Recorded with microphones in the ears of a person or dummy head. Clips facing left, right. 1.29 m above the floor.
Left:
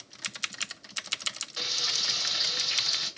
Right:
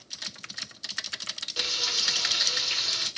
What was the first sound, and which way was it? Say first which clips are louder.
Frying: right 4 dB; 40° right (ahead or behind).